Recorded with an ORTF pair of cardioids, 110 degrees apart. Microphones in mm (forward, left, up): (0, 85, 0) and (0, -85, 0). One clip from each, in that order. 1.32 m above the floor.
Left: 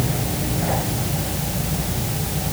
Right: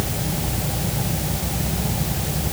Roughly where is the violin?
No violin in this recording.